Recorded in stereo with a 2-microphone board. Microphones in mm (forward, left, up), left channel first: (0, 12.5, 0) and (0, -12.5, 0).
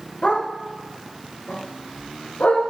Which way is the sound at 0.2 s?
55° left (ahead or behind).